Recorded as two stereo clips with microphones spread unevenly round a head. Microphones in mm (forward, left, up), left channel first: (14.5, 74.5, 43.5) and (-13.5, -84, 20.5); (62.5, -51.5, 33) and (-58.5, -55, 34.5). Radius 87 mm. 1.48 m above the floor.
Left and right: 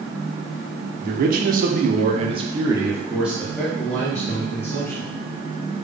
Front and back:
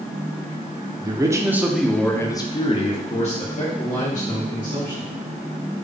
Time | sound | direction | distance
1.0 | a man speaking | 120° right | 0.8 m